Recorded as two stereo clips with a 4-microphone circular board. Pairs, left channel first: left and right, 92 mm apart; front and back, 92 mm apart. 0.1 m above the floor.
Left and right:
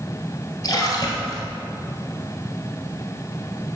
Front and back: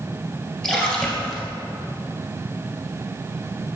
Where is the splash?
75° left, 2 m.